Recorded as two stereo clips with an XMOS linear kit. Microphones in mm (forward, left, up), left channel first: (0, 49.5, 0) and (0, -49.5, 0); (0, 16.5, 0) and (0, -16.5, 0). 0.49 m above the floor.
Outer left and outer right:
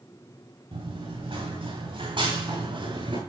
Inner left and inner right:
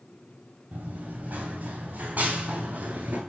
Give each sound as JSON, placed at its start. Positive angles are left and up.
{"t": 0.7, "sound": "running footsteps", "side_deg": -75, "distance_m": 6.0}